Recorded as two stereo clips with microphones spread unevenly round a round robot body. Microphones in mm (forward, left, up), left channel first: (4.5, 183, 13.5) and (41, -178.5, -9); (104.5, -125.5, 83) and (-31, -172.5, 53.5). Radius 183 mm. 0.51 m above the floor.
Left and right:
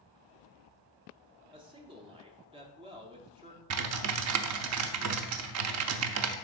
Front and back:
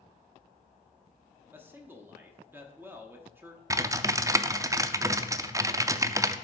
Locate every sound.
1.5 s a man speaking: 135° right, 0.9 m
3.7 s typing on a keyboard: 105° right, 0.5 m